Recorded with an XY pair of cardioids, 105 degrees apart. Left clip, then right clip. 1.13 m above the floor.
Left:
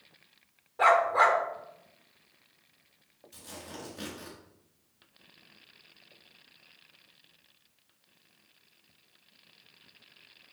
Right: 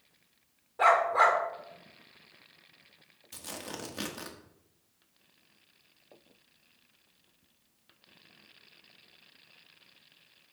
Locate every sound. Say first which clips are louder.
0.8 s a dog barking: left 1 dB; 5° left, 1.5 m
3.3 s tearing paper: right 3 dB; 65° right, 1.4 m